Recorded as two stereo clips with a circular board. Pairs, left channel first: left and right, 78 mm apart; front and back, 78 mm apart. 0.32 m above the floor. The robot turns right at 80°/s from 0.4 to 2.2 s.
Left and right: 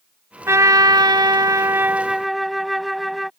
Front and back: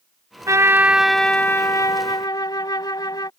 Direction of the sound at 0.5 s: 140° right.